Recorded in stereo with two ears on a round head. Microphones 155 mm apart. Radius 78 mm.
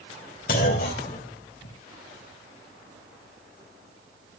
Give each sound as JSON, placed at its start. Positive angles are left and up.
{"t": 0.5, "sound": "a clunk", "side_deg": 60, "distance_m": 3.5}